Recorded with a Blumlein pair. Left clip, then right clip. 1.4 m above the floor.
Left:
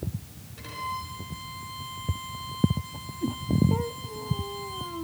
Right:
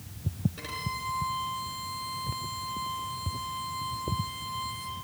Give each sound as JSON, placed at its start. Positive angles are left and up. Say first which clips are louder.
{"t": 0.6, "sound": "a violin", "louder": "left 3 dB", "azimuth_deg": -15, "distance_m": 5.0}